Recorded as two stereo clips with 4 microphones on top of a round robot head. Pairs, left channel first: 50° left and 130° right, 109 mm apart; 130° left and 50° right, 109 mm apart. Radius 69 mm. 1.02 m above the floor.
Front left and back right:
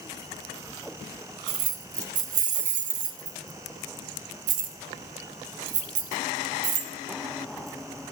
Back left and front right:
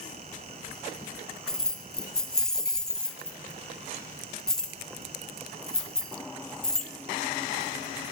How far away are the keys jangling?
About 1.0 m.